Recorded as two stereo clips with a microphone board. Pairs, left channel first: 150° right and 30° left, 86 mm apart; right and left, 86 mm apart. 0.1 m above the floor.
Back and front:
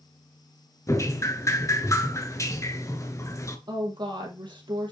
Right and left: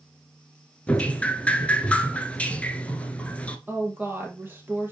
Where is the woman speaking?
30° left, 2.5 m.